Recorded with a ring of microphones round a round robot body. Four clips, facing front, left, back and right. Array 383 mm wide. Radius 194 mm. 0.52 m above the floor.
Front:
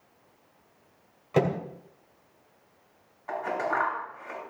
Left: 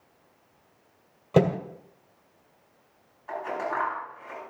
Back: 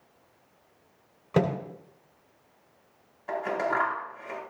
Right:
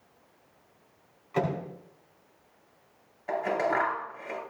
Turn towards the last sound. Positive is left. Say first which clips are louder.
# right 3 dB, back 1 dB
turn(degrees=-125)